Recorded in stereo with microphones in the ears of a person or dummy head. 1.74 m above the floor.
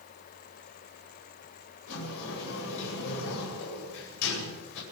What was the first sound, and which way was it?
A sliding door, 70° left (ahead or behind).